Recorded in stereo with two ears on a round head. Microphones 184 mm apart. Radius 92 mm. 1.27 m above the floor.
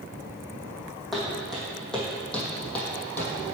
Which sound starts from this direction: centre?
Footsteps, at 1.1 s.